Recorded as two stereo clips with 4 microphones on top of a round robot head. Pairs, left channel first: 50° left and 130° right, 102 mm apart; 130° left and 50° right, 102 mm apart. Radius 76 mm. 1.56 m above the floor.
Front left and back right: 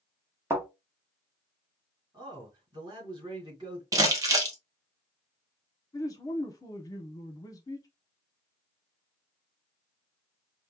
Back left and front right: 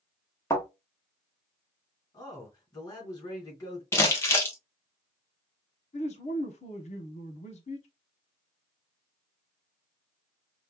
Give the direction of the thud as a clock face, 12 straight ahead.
6 o'clock.